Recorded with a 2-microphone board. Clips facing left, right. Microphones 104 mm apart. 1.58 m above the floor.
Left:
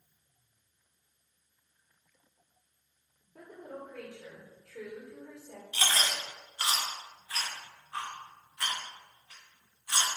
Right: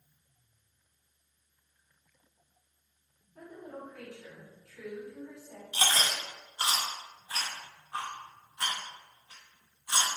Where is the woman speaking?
75° left (ahead or behind), 1.8 m.